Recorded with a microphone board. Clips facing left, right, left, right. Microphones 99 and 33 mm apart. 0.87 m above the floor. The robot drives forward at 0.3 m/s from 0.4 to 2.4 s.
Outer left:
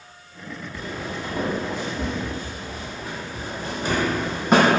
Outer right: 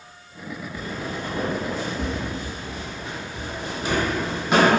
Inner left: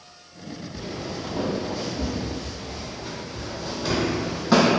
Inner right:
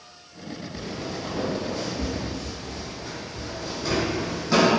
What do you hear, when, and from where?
0.7 s footsteps: 10° left (ahead or behind), 1.2 m; by 4.7 s 45° left (ahead or behind), 1.4 m